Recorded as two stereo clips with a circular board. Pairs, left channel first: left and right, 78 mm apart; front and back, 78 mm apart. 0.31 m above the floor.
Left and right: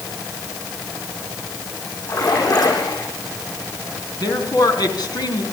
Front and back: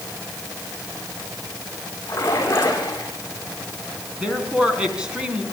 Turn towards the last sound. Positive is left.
turn(degrees=105)